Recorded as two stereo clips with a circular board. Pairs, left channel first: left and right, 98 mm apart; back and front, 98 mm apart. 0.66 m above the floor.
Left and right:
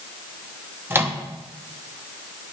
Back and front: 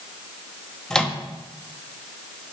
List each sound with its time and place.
0.9 s a microwave: 110° right, 0.8 m